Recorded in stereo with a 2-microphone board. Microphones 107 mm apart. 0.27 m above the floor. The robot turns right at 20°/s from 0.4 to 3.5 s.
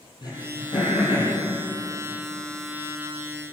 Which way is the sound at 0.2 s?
40° left (ahead or behind).